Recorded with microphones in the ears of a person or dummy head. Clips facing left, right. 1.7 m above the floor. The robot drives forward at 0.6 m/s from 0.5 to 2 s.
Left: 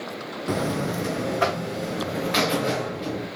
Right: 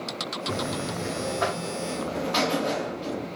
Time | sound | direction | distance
0.5 | a buzzer | 70° left (ahead or behind) | 0.5 m